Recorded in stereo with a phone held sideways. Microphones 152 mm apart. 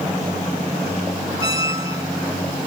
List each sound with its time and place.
1.4 s a squeak: 25° right (ahead or behind)